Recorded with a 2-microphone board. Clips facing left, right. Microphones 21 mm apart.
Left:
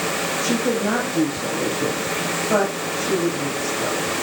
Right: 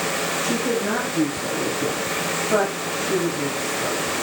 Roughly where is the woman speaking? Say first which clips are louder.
Left 3 dB; left.